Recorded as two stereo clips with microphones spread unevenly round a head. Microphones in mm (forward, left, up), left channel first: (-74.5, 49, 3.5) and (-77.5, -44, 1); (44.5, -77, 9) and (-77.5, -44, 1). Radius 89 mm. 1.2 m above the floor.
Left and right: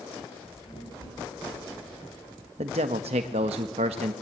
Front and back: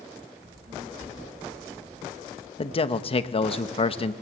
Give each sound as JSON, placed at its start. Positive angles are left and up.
{"t": 0.4, "sound": "a child speaking", "azimuth_deg": 115, "distance_m": 7.5}
{"t": 2.6, "sound": "a man speaking", "azimuth_deg": -60, "distance_m": 1.2}